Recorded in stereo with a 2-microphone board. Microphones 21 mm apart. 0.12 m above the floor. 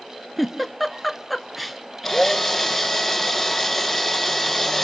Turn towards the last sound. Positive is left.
turn(degrees=5)  # may be behind; listen again after turning